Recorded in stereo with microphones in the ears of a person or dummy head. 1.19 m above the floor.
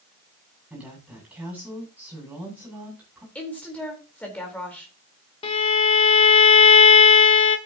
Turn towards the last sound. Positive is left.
turn(degrees=35)  # may be behind; listen again after turning